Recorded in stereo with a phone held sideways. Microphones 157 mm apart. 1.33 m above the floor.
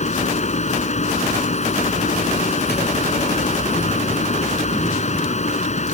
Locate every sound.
0.0 s a fan: 50° left (ahead or behind)